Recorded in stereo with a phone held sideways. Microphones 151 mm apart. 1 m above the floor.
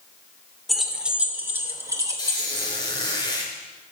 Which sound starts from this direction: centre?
Keys jangling, at 0.7 s.